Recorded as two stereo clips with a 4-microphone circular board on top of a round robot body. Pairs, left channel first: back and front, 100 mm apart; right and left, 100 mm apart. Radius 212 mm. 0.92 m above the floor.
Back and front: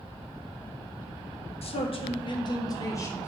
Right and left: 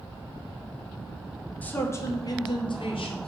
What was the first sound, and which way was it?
A man speaking, 165° right.